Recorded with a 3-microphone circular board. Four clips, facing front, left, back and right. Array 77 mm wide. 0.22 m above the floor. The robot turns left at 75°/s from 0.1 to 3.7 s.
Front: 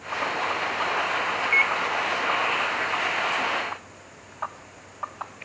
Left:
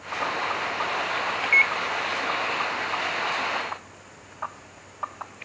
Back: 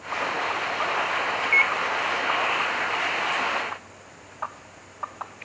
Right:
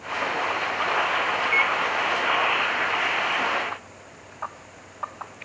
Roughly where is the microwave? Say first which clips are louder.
Left 3 dB, back 1 dB; behind left.